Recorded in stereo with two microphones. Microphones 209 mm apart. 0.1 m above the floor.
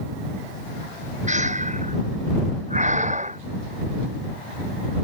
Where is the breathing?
35° right (ahead or behind).